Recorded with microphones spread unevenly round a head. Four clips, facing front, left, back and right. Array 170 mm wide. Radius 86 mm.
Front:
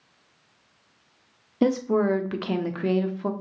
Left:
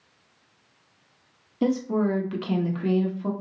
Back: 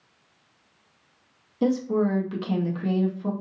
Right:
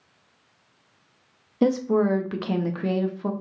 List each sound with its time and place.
1.6 s a woman speaking: 50° right, 0.7 m